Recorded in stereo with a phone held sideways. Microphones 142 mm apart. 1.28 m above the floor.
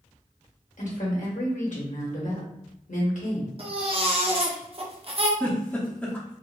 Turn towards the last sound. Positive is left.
turn(degrees=10)  # may be behind; listen again after turning